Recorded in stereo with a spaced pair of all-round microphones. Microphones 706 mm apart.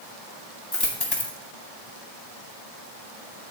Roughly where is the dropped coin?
Left.